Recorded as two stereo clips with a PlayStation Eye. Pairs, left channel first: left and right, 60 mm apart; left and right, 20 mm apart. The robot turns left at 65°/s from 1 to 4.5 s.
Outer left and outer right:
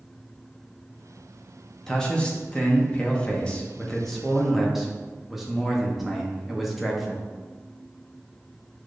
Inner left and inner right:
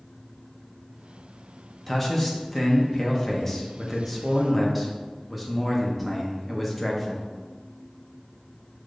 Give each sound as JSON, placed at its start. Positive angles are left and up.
{"t": 1.9, "sound": "a man speaking", "side_deg": 10, "distance_m": 0.7}